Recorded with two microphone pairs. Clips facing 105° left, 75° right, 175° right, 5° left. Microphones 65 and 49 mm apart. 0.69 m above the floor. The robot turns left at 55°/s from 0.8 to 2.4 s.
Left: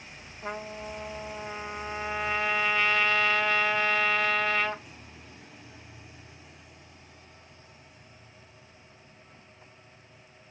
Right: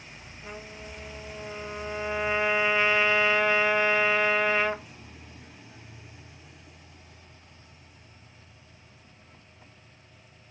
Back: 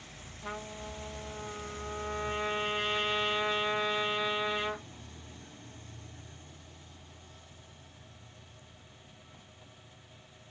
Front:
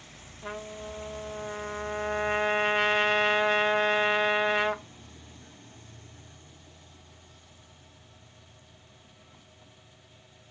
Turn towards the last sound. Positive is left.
turn(degrees=-5)